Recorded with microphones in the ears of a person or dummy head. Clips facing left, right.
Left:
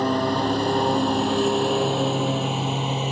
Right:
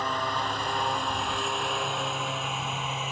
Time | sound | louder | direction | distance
0.0 | a lawn mower | left 10 dB | 45° left (ahead or behind) | ?